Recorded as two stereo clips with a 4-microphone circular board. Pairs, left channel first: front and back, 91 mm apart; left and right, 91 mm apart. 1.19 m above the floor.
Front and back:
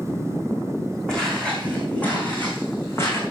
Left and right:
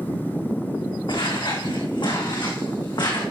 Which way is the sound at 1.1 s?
80° left.